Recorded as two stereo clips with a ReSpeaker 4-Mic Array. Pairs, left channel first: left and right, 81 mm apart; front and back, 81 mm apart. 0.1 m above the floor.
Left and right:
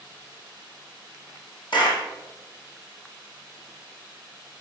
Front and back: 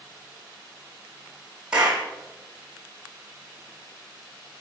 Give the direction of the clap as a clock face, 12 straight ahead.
9 o'clock.